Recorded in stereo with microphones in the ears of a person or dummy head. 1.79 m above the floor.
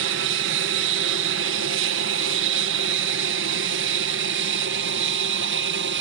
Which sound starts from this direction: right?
An aircraft, at 0.0 s.